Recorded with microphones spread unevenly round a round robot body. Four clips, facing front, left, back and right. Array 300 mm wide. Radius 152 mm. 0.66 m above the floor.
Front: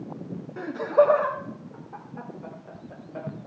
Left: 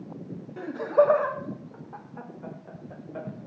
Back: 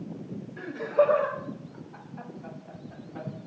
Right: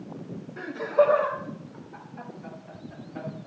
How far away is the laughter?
About 1.1 m.